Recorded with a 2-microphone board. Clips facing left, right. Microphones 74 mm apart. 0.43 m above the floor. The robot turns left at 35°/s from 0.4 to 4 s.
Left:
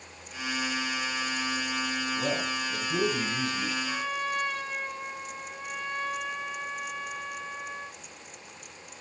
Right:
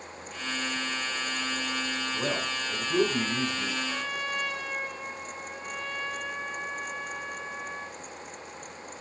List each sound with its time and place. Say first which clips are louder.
2.1 s a man speaking: even; 100° right, 5 m; by 3.8 s 155° right, 5 m
3.9 s a trumpet: left 2 dB; 15° right (ahead or behind), 3.5 m; by 8.0 s 10° right (ahead or behind), 3.5 m